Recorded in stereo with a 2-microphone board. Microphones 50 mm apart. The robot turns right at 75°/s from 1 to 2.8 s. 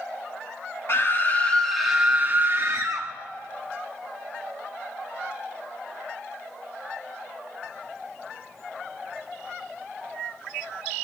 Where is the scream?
120° left, 1.0 m; by 3.1 s 105° right, 1.0 m.